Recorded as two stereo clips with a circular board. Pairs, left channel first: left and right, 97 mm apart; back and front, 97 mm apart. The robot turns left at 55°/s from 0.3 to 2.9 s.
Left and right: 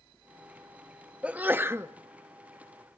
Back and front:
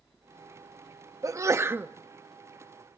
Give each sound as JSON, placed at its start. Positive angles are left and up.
{"t": 1.2, "sound": "a sneeze", "azimuth_deg": -20, "distance_m": 0.6}